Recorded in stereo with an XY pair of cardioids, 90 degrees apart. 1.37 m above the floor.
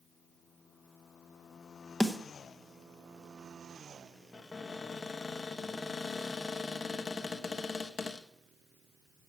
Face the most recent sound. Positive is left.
turn(degrees=40)